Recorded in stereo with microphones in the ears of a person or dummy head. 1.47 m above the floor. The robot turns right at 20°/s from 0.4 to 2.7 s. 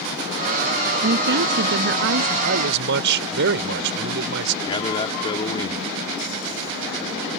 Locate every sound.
1.0 s a woman speaking: 50° right (ahead or behind); by 2.3 s 80° right
2.4 s a man speaking: 65° right (ahead or behind); by 4.5 s 60° right (ahead or behind)
4.6 s a man speaking: 25° left (ahead or behind)